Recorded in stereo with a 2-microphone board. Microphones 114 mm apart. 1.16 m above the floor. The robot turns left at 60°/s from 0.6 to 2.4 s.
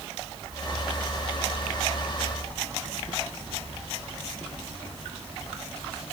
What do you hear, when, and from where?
Only background noise.